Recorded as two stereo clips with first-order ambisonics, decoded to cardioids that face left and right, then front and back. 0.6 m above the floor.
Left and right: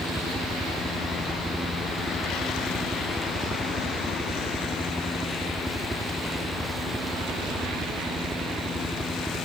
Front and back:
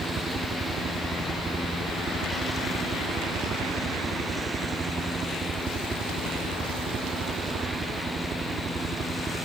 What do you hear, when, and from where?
0.0 s a helicopter: 160° right